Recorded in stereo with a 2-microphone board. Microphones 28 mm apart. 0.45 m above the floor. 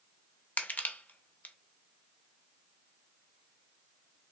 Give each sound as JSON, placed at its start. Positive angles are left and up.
{"t": 0.6, "sound": "crushing", "side_deg": 70, "distance_m": 0.5}